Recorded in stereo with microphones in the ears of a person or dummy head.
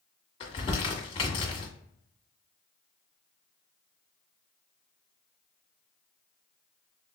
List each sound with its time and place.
0.4 s crumpling: 30° left (ahead or behind), 1.5 m